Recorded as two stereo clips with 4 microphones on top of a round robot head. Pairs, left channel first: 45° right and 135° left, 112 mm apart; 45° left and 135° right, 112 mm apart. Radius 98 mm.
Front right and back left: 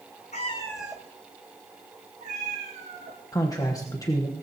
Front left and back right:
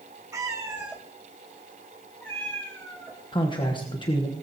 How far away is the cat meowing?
About 1.0 m.